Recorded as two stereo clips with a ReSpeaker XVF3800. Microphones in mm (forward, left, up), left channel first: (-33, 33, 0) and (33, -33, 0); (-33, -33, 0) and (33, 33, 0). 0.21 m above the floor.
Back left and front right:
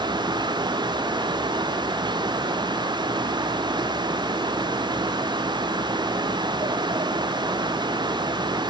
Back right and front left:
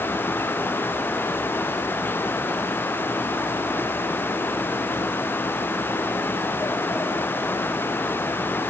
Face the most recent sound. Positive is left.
No sound to turn to.